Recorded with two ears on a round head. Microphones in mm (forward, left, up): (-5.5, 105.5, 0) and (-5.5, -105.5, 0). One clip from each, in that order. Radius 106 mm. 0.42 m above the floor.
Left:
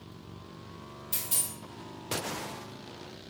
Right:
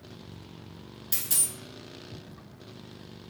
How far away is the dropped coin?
About 1.6 m.